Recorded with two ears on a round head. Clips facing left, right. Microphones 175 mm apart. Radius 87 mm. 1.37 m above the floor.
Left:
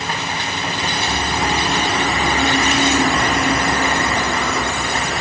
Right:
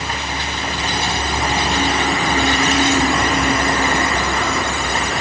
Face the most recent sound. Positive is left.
No sound to turn to.